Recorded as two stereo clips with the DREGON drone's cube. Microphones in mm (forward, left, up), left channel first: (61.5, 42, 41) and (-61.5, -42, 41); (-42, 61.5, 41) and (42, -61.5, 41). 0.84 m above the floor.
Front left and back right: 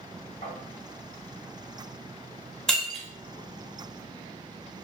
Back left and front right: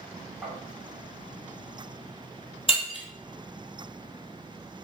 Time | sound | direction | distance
0.4 | tapping | 10° left | 1.5 m
2.7 | breaking glass | 120° left | 0.6 m